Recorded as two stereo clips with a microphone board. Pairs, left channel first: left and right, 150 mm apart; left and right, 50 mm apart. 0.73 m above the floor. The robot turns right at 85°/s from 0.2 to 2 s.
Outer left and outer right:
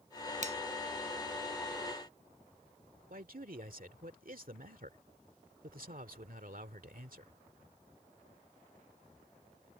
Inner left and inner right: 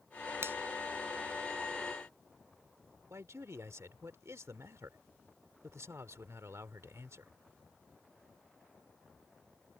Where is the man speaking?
70° right (ahead or behind).